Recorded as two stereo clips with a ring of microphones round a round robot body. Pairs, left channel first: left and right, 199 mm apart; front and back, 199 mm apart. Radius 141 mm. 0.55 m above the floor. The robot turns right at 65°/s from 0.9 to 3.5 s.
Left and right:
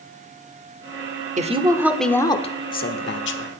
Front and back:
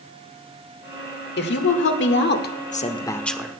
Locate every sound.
1.4 s a woman speaking: 40° right, 1.2 m; by 3.6 s 100° left, 1.2 m